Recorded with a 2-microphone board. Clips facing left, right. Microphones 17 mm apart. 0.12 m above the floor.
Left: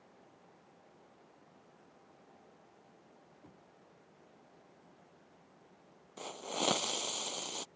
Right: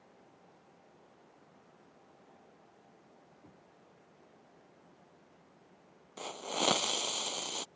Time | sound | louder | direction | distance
3.4 | knocking | even | 15° left (ahead or behind) | ?
6.2 | a hiss | right 3 dB | 20° right (ahead or behind) | ?